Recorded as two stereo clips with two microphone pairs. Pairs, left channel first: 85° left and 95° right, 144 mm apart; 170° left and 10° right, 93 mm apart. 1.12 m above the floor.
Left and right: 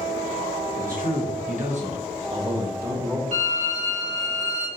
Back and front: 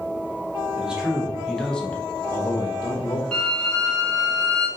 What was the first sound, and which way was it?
A man speaking, 90° right.